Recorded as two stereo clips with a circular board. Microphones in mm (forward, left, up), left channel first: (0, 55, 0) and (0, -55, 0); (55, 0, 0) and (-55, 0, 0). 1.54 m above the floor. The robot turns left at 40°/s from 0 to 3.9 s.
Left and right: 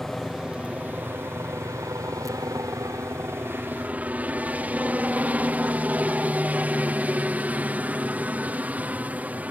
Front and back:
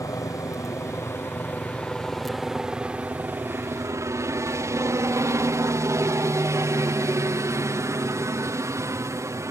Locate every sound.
0.0 s a helicopter: 5° left; by 9.5 s 150° right